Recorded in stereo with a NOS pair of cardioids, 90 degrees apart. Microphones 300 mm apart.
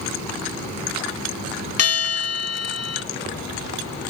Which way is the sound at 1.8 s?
55° left.